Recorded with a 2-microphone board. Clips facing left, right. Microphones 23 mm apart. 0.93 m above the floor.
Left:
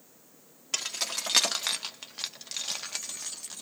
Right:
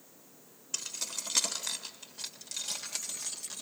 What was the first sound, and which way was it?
Keys jangling, 80° left.